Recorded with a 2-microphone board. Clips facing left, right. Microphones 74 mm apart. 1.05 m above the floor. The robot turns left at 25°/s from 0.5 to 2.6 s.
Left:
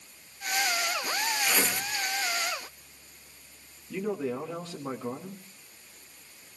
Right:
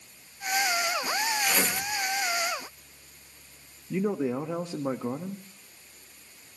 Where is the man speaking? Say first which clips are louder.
Right 3 dB; 20° right (ahead or behind), 1.3 m.